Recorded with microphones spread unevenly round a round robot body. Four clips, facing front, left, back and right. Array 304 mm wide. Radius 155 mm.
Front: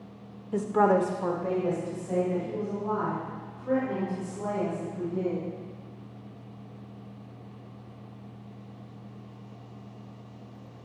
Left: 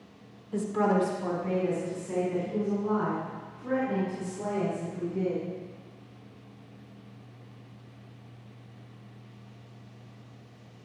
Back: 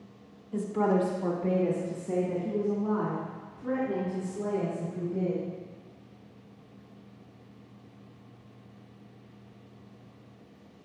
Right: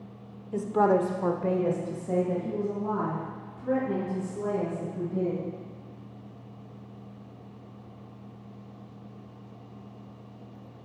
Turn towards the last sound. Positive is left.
turn(degrees=-115)